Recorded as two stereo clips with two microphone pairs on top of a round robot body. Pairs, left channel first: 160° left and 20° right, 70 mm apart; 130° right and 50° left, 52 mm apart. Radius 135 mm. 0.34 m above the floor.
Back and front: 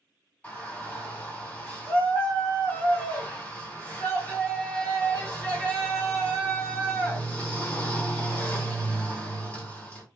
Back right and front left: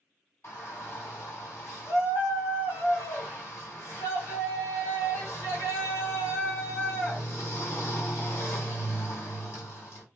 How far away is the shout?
About 2 m.